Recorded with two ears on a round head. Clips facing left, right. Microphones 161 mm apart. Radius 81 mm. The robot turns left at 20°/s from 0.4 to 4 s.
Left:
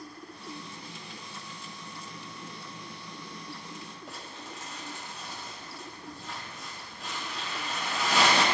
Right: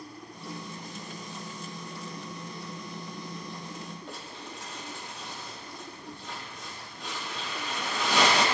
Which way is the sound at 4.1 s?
5° left (ahead or behind).